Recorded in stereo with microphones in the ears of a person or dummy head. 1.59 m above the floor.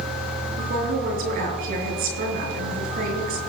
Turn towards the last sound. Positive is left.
turn(degrees=-55)  # may be behind; listen again after turning